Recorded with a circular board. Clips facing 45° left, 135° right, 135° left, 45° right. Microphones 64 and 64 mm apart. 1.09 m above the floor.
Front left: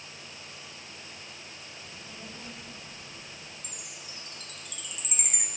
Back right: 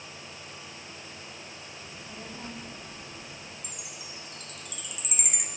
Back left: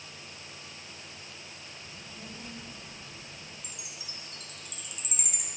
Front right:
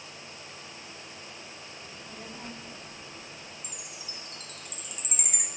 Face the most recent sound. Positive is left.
turn(degrees=-50)